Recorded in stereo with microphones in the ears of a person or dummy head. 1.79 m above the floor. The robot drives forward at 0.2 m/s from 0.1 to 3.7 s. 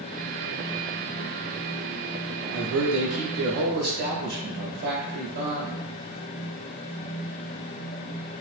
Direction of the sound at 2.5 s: 70° right (ahead or behind).